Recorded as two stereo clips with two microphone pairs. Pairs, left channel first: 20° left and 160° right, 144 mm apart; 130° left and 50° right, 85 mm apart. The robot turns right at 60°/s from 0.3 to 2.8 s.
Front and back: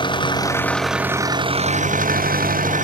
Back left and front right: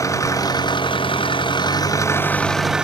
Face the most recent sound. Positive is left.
turn(degrees=-130)